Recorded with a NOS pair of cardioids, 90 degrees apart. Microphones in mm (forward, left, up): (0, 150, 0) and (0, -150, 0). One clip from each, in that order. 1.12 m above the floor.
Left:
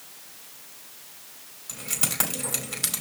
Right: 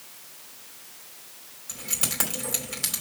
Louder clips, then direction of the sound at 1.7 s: Even; 5° left.